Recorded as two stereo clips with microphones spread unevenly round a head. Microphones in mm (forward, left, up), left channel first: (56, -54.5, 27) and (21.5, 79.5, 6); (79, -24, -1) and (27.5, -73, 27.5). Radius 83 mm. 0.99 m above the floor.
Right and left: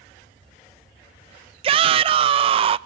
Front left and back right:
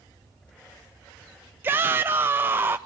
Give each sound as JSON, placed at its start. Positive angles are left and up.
{"t": 1.6, "sound": "a shout", "azimuth_deg": 140, "distance_m": 0.5}